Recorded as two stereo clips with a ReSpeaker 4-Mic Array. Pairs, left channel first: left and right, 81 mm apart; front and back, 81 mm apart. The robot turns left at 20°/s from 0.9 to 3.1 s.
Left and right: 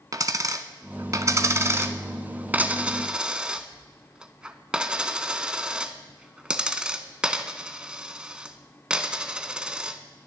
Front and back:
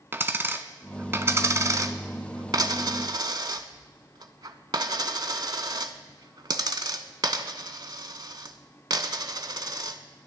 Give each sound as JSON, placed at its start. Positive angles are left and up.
{"t": 0.1, "sound": "a dropped coin", "azimuth_deg": -125, "distance_m": 0.7}